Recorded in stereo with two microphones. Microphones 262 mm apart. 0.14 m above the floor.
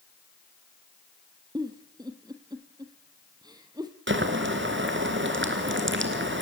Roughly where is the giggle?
Centre.